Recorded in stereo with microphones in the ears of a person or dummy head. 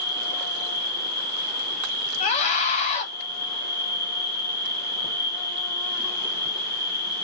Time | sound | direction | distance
0.0 | an insect | 10° left (ahead or behind) | 1.6 m
2.2 | a scream | 50° left (ahead or behind) | 0.7 m